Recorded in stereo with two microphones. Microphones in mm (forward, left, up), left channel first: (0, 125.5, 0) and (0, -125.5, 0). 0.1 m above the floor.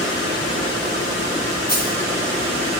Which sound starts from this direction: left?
A dropped coin, at 1.7 s.